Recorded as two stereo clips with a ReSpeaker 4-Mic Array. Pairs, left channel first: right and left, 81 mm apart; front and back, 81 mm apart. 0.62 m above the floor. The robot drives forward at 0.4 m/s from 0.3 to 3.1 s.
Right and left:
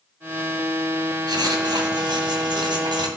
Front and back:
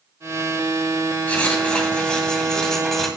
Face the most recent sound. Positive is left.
turn(degrees=85)